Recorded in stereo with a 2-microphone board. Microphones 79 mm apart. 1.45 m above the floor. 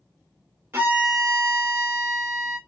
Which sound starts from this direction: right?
A violin, at 0.7 s.